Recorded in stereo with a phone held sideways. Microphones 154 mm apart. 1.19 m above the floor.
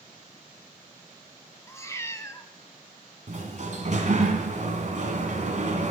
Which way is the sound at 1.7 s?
20° left (ahead or behind).